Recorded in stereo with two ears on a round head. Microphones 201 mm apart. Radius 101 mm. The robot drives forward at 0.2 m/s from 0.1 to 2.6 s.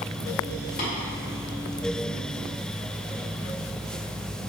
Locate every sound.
0.8 s tapping: 35° left (ahead or behind), 1.8 m